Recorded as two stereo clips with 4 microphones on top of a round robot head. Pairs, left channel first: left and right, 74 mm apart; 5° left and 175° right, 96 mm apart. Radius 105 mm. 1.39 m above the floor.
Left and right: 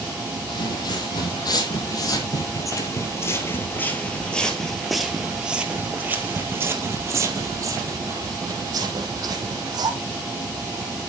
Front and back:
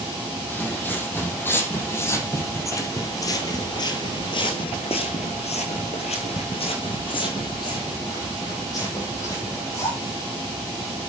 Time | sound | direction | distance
0.5 | footsteps | 75° left | 3 m